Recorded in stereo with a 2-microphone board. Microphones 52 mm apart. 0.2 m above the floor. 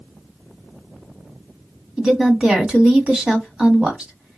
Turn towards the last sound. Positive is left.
turn(degrees=-20)  # may be behind; listen again after turning